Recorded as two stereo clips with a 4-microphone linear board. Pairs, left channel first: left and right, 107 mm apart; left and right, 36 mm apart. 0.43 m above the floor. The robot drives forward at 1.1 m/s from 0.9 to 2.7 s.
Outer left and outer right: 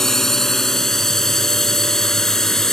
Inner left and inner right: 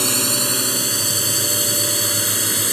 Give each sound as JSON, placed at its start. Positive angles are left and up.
{"t": 0.0, "sound": "a drone", "side_deg": 5}